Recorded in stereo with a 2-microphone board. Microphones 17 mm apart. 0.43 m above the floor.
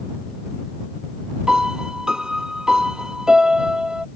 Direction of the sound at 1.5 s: 55° right (ahead or behind).